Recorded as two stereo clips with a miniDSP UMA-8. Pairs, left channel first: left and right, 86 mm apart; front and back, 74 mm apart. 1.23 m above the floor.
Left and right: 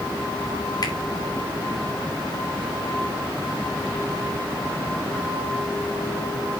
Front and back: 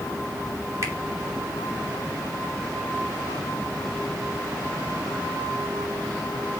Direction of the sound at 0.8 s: 135° left.